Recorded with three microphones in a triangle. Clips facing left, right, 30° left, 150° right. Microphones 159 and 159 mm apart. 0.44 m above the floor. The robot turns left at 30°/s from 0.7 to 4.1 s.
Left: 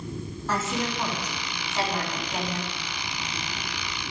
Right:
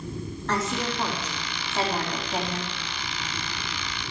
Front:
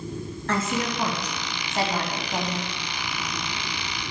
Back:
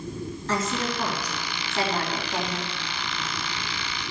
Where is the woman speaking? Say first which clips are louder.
Even, front 2 dB; 10° left, 3.5 m; by 2.7 s 55° right, 3.5 m.